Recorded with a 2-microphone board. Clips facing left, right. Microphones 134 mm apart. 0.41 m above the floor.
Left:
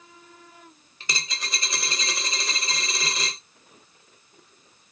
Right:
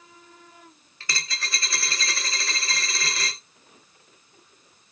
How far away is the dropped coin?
About 0.6 m.